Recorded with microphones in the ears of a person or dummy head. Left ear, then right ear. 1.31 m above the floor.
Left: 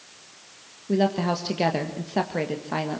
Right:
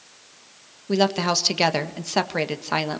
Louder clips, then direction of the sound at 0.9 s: Right 3 dB; 45° right (ahead or behind).